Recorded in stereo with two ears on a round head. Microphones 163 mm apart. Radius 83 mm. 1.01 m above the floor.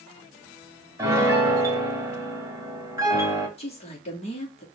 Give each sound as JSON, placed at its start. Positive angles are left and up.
{"t": 1.0, "sound": "a piano", "side_deg": -15, "distance_m": 1.2}
{"t": 3.6, "sound": "a woman speaking", "side_deg": 35, "distance_m": 1.9}